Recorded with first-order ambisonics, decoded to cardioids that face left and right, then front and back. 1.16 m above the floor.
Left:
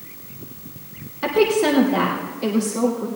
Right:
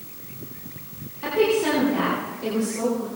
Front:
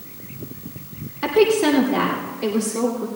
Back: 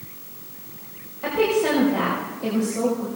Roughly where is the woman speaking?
Ahead left.